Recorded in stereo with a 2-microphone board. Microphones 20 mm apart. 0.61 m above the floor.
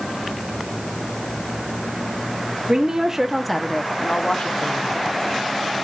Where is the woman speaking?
40° right (ahead or behind), 1.1 m; by 4.9 s 60° left (ahead or behind), 1.7 m.